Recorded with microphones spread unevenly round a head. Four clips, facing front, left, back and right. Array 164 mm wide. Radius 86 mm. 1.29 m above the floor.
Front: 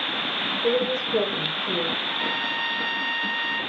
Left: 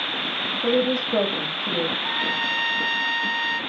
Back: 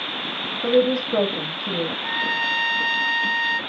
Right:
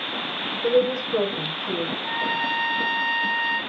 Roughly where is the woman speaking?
Behind left.